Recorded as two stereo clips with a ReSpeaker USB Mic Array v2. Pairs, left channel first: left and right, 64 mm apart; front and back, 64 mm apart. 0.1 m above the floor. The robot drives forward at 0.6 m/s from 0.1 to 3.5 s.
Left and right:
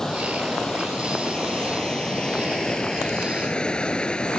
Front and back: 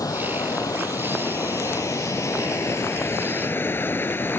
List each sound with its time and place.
0.0 s running water: 10° left; by 4.4 s 25° left